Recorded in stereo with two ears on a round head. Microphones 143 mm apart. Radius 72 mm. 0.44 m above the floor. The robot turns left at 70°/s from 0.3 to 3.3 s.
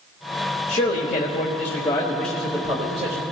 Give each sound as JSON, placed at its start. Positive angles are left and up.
{"t": 0.7, "sound": "a man speaking", "azimuth_deg": 120, "distance_m": 1.3}